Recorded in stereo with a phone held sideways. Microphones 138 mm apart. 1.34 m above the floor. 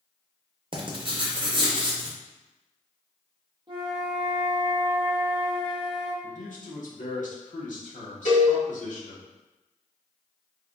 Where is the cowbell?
60° left (ahead or behind), 1.8 m.